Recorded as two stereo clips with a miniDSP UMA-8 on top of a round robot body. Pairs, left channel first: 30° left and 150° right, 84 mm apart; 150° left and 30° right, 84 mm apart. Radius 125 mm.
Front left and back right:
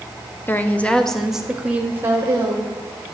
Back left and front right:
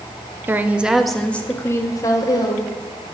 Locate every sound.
0.5 s a woman speaking: straight ahead, 0.9 m; by 2.7 s 165° left, 1.3 m